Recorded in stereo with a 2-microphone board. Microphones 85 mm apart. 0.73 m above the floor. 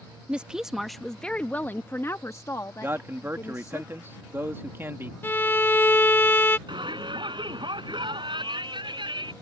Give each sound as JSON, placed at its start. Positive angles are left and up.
{"t": 0.3, "sound": "a woman speaking", "side_deg": -15}
{"t": 2.8, "sound": "a man speaking", "side_deg": -30}
{"t": 5.2, "sound": "a violin", "side_deg": 25}
{"t": 6.7, "sound": "a shout", "side_deg": -65}